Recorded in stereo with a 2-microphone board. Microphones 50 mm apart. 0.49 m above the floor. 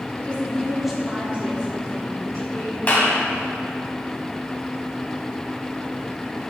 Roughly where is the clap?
Left.